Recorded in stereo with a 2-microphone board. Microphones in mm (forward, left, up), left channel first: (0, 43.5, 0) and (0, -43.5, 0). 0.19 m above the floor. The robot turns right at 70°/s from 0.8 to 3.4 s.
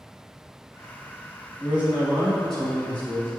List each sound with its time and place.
1.6 s a man speaking: 20° right (ahead or behind), 1.5 m; by 3.3 s 25° left (ahead or behind), 1.5 m